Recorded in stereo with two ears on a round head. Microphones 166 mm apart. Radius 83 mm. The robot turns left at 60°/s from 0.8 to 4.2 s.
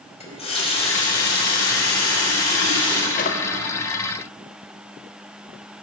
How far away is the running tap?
About 3.5 m.